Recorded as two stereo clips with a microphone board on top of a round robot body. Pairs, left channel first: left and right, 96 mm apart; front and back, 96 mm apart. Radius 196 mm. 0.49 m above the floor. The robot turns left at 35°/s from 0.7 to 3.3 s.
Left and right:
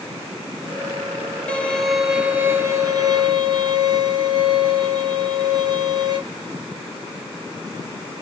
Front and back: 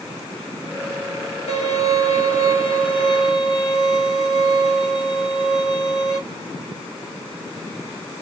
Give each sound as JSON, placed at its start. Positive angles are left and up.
{"t": 1.5, "sound": "a violin", "azimuth_deg": 15, "distance_m": 1.2}